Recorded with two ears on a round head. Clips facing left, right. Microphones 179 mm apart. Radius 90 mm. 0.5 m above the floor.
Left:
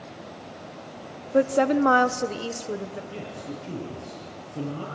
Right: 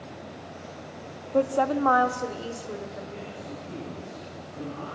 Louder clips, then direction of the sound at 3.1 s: Left 2 dB; 45° left (ahead or behind).